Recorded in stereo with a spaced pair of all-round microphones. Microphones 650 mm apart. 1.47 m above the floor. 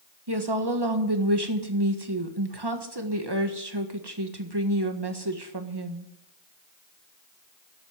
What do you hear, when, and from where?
0.3 s a woman speaking: 40° right (ahead or behind), 1.6 m